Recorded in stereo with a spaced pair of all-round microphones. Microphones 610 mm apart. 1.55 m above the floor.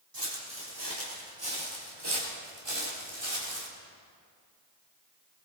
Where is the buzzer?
No buzzer in this recording.